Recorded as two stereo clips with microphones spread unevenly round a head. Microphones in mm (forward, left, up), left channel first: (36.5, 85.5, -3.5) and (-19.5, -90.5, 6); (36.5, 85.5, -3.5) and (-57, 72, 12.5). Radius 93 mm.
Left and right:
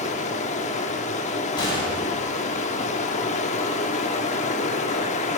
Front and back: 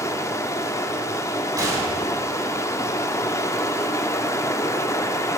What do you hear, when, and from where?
0.0 s running water: 55° left, 0.8 m
1.6 s a gunshot: 140° left, 5 m